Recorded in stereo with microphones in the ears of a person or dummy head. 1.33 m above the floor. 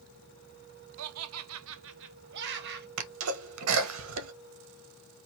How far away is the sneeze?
About 1.2 m.